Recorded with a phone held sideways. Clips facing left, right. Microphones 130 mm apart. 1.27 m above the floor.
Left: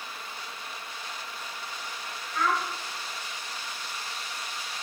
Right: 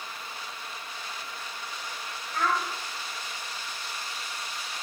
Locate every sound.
2.3 s a child speaking: 60° right (ahead or behind), 1.5 m